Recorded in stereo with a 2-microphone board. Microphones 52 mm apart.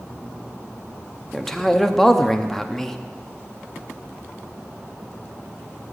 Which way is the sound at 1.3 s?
5° left (ahead or behind).